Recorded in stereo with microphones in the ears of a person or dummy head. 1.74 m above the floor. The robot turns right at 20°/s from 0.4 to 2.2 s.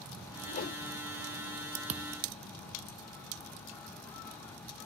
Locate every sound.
0.5 s a whoosh: 50° left (ahead or behind); by 0.8 s 55° left (ahead or behind)
1.9 s a thud: 30° right (ahead or behind); by 2.2 s 25° right (ahead or behind)